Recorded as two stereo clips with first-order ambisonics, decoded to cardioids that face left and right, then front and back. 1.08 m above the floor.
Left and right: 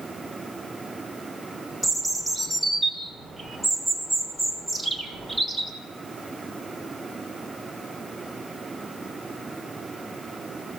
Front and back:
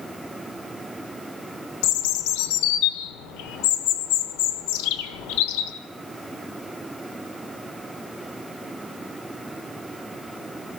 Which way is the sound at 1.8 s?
5° right.